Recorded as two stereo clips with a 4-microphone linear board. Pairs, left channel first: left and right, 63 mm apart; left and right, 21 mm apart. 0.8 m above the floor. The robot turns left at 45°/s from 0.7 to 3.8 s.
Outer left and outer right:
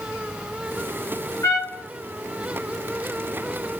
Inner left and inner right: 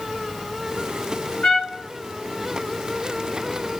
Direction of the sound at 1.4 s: 70° left (ahead or behind).